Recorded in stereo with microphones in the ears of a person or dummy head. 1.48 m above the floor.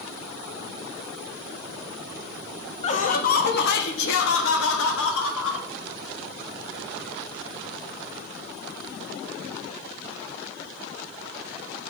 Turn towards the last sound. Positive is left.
turn(degrees=85)